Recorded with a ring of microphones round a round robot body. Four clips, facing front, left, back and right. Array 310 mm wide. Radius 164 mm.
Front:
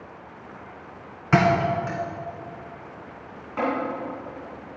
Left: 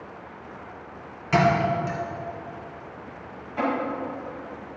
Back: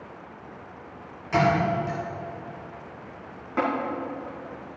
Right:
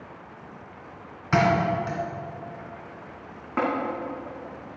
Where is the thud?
15° right, 2 m.